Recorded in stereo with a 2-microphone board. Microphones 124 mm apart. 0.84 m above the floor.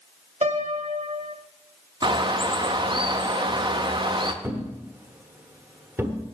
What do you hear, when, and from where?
0.4 s a piano: 60° right (ahead or behind), 0.9 m
2.0 s a bird: 40° right (ahead or behind), 0.7 m
4.4 s a thud: 20° right (ahead or behind), 1.1 m